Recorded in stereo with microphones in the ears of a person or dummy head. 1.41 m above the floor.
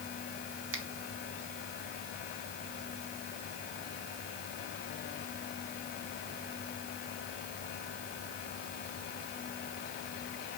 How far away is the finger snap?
About 2.5 m.